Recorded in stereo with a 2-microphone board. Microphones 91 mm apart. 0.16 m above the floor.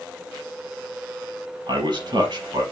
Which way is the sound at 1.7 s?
55° right (ahead or behind).